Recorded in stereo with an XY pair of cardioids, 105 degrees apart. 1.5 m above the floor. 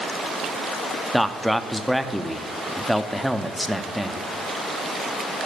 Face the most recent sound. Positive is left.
turn(degrees=0)